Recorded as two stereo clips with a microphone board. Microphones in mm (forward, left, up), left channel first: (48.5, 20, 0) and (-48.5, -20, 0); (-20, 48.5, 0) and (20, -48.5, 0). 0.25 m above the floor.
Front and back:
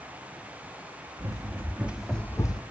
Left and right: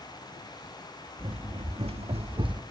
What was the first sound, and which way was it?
Running footsteps, 100° right.